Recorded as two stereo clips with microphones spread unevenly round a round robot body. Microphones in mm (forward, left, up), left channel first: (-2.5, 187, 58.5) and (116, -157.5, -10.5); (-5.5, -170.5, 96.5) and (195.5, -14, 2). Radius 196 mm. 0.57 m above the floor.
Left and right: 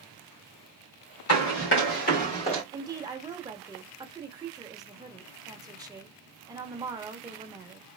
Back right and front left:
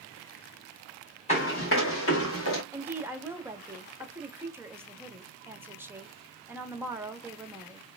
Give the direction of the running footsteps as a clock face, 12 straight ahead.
7 o'clock.